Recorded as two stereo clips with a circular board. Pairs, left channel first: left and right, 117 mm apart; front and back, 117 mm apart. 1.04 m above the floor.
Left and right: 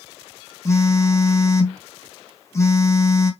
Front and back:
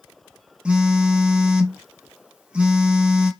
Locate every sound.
0.7 s a phone buzzing: 105° left, 0.6 m